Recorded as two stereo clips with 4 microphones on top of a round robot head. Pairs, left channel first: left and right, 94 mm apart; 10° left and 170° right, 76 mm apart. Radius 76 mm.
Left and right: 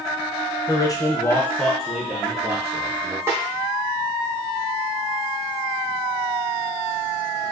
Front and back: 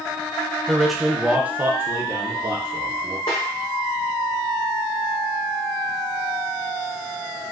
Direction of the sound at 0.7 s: 95° left.